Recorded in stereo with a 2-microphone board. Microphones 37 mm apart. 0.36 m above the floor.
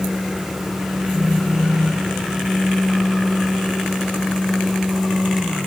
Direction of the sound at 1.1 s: 65° right (ahead or behind).